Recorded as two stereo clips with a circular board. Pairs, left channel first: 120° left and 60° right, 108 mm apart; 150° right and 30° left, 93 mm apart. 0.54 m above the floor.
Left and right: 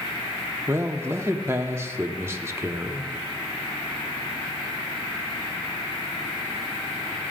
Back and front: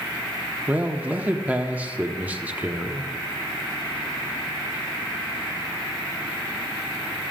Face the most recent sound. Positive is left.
turn(degrees=-25)